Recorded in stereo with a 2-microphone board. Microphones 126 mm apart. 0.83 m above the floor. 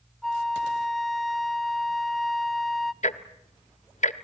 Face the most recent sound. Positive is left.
turn(degrees=70)  # may be behind; listen again after turning